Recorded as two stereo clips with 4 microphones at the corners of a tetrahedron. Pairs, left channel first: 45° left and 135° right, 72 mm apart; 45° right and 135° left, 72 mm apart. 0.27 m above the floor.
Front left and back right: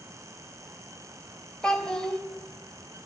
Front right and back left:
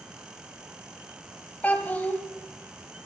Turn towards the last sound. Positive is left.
turn(degrees=-20)